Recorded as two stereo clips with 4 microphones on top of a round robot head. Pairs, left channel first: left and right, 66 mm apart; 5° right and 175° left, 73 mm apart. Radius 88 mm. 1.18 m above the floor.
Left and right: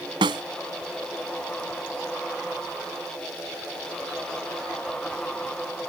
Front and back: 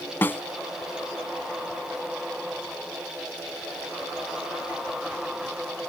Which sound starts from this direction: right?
A snare drum, at 0.2 s.